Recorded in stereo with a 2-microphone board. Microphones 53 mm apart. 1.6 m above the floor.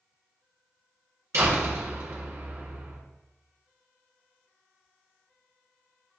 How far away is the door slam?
About 4 m.